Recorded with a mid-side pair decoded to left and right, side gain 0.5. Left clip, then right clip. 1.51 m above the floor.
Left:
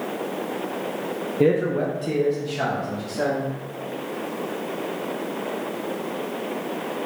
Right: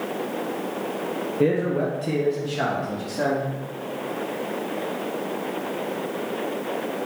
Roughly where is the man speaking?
Ahead left.